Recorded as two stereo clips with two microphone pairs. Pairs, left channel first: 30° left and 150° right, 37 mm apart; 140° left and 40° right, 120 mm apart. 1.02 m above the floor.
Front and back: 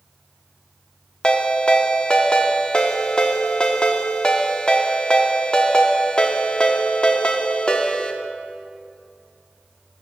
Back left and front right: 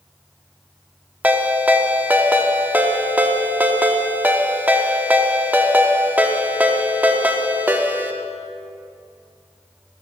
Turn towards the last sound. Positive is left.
turn(degrees=5)